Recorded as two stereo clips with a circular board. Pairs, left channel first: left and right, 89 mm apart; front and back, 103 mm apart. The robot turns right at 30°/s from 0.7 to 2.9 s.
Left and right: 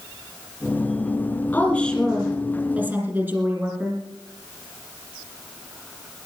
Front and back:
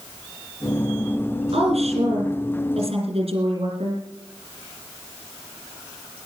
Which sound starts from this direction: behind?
A woman speaking, at 1.5 s.